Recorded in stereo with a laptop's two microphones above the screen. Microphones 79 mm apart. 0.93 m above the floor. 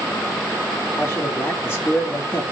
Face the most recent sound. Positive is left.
turn(degrees=30)  # may be behind; listen again after turning